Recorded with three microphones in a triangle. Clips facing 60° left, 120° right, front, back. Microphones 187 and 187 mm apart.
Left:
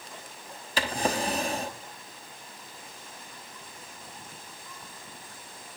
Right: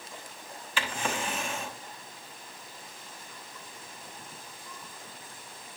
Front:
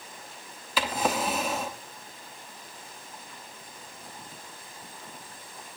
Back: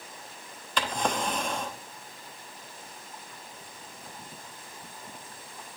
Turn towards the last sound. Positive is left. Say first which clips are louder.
# left 5 dB, front 2 dB
turn(degrees=80)